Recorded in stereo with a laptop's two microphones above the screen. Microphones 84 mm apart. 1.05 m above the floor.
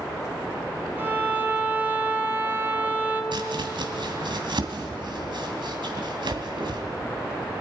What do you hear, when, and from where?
1.0 s a violin: 25° right (ahead or behind), 3.5 m
3.3 s chopping: 70° right (ahead or behind), 2 m